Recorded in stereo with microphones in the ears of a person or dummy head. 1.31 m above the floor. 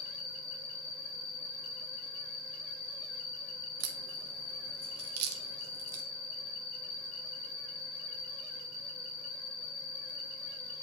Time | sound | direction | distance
0.0 | an insect | 30° left (ahead or behind) | 1.8 m
3.8 | a crack | 80° right | 1.1 m